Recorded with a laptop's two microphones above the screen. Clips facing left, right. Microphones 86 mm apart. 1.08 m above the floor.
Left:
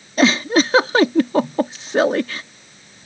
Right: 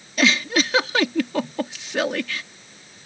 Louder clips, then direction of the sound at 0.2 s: Left 5 dB; 35° left (ahead or behind).